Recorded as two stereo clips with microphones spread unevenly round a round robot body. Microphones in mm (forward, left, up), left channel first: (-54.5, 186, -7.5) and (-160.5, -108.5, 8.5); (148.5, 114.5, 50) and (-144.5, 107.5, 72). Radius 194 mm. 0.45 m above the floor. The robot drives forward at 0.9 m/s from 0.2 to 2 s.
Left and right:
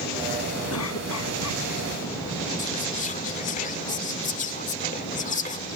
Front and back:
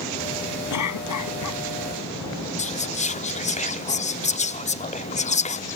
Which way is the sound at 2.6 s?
35° left.